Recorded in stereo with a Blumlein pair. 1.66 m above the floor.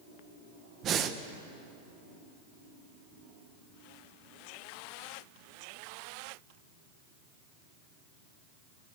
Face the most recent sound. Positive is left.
turn(degrees=-30)